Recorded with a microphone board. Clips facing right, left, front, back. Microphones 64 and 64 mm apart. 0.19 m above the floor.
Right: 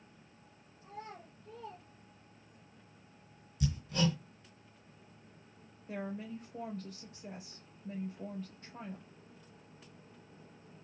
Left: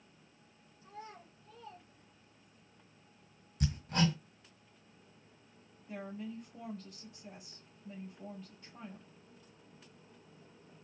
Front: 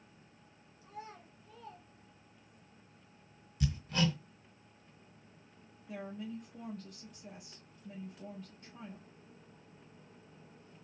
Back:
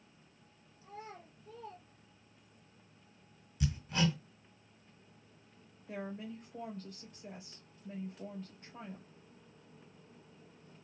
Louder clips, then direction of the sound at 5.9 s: Right 2 dB, even; 130° right.